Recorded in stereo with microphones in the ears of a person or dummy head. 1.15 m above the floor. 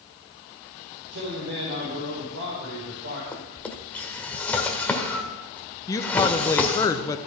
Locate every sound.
1.1 s a man speaking: 60° right (ahead or behind), 4.5 m
3.3 s a drawer: 5° left (ahead or behind), 1.5 m
5.9 s a woman speaking: 20° left (ahead or behind), 1.0 m